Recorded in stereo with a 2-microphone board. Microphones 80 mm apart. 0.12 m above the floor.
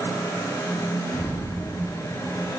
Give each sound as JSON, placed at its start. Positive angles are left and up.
{"t": 1.1, "sound": "an explosion", "side_deg": 55, "distance_m": 8.5}